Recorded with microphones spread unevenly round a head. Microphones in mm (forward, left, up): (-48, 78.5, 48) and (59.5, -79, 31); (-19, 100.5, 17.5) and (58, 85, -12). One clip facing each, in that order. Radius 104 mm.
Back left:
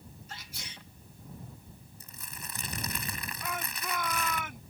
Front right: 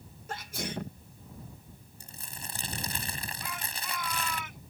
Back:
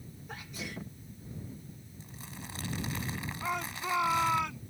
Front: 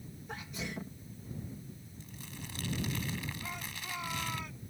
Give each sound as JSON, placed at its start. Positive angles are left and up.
{"t": 0.3, "sound": "a sneeze", "azimuth_deg": -100}
{"t": 2.0, "sound": "crumpling", "azimuth_deg": -120}
{"t": 3.4, "sound": "a shout", "azimuth_deg": 170}